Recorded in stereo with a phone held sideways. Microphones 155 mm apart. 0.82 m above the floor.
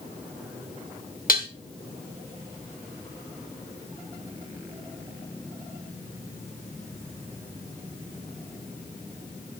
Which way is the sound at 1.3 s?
70° left (ahead or behind).